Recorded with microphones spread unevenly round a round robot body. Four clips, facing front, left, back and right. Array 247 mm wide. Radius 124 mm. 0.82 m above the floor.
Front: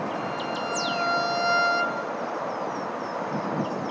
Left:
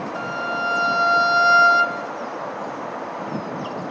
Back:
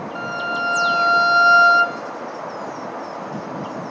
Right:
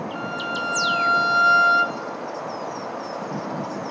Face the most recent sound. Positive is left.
turn(degrees=165)